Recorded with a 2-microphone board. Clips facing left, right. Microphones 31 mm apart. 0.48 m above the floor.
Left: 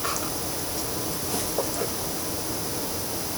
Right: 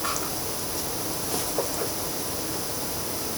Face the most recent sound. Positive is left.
No sound to turn to.